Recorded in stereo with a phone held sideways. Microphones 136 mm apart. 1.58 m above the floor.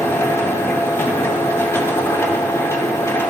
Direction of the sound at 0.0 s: 20° left (ahead or behind).